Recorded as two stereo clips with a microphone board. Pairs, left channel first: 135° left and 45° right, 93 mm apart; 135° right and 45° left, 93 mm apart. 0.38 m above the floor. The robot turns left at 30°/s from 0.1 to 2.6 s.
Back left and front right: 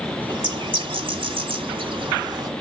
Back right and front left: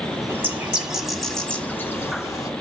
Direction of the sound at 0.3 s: 20° right.